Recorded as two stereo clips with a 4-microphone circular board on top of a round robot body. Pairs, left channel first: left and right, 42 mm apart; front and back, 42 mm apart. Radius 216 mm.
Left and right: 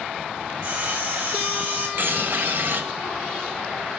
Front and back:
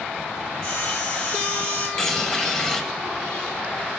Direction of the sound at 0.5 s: 40° right.